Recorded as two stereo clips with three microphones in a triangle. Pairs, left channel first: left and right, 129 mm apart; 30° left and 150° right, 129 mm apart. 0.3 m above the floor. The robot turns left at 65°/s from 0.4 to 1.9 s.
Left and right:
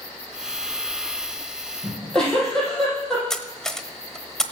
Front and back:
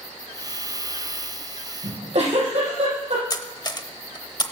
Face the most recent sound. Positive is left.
turn(degrees=5)